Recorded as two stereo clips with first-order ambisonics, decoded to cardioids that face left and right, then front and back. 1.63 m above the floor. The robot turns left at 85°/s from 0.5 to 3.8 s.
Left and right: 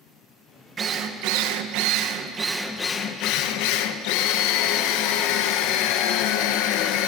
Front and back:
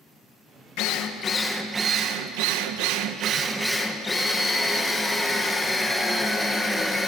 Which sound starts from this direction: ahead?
A drill, at 0.8 s.